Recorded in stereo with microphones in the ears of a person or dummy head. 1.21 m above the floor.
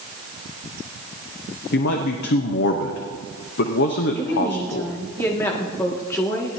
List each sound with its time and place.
1.7 s a man speaking: 60° left (ahead or behind), 0.9 m
4.2 s a woman speaking: 15° left (ahead or behind), 2 m